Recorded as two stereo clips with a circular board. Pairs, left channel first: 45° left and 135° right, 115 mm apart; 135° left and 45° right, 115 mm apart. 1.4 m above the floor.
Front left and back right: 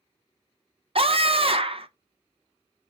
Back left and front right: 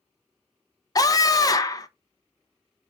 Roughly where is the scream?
Behind.